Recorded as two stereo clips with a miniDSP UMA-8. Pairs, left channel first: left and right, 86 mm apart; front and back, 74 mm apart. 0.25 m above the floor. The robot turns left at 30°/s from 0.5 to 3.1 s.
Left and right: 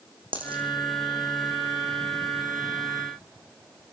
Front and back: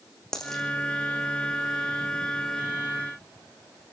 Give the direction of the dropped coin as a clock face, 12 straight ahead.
3 o'clock.